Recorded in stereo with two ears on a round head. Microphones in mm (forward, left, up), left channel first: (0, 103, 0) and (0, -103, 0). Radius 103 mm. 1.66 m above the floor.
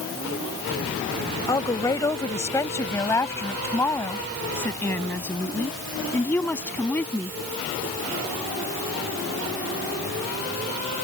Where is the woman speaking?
15° left (ahead or behind); by 7.3 s 5° left (ahead or behind).